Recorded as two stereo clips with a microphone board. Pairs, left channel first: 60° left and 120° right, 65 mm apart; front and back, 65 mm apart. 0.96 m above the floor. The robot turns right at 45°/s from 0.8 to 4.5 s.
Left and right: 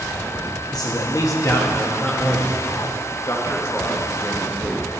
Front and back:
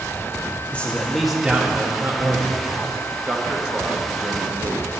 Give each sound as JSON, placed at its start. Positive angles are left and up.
{"t": 0.7, "sound": "a man speaking", "azimuth_deg": 70, "distance_m": 1.4}
{"t": 3.2, "sound": "a man speaking", "azimuth_deg": 95, "distance_m": 1.1}